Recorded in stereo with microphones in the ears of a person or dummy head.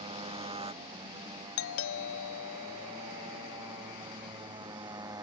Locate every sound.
0.0 s a motorcycle: 25° right (ahead or behind); by 5.2 s 20° right (ahead or behind)
1.6 s a doorbell: 75° left (ahead or behind)